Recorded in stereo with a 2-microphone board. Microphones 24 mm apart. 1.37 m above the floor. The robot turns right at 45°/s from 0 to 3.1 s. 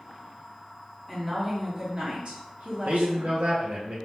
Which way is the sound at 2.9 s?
70° right (ahead or behind).